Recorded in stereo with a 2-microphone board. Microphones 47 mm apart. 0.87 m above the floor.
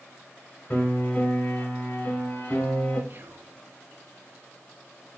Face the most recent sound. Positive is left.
turn(degrees=-45)  # may be behind; listen again after turning